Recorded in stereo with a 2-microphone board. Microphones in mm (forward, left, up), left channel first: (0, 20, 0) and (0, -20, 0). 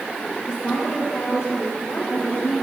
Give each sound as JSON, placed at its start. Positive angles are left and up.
{"t": 0.5, "sound": "a woman speaking", "side_deg": 80, "distance_m": 7.0}